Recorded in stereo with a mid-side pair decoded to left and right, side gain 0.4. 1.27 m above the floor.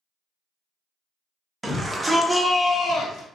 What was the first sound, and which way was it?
A shout, 25° right.